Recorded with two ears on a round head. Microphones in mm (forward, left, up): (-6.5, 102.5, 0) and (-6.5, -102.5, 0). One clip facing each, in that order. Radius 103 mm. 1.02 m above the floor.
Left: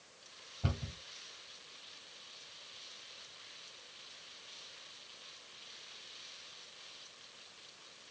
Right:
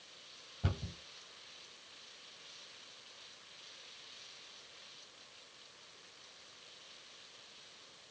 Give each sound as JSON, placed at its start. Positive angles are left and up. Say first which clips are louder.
{"t": 0.6, "sound": "a cupboard door", "louder": "left 1 dB", "side_deg": -10, "distance_m": 2.5}